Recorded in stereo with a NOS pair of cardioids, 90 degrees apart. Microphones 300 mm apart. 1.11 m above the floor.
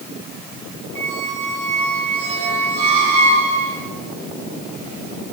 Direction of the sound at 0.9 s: 65° right.